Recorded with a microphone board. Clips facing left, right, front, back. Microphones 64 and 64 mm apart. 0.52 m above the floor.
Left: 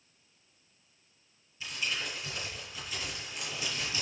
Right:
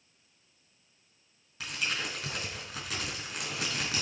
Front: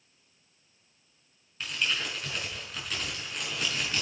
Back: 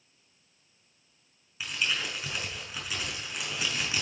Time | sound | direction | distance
1.6 | crumpling | 100° right | 5.5 m